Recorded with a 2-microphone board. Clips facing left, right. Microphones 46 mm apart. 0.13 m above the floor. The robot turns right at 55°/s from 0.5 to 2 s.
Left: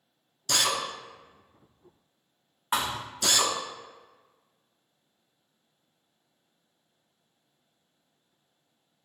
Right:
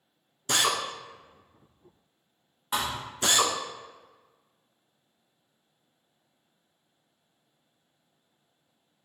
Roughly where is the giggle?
No giggle in this recording.